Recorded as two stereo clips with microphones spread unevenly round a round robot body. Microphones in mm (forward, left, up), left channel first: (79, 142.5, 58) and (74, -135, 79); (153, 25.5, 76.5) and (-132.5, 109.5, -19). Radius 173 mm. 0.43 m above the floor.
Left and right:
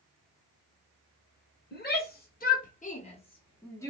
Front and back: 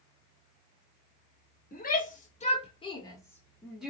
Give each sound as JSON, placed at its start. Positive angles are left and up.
{"t": 1.7, "sound": "a shout", "azimuth_deg": 55, "distance_m": 1.7}